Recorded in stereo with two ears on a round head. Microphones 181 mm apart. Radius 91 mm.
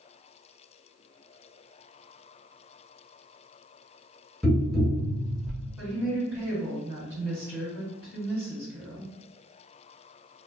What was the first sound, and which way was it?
Tapping, centre (ahead or behind).